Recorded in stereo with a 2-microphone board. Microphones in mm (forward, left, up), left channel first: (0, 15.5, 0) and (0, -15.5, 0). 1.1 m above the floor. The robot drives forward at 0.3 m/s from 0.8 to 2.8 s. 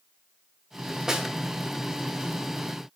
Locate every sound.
1.1 s a snare drum: 20° right (ahead or behind), 0.8 m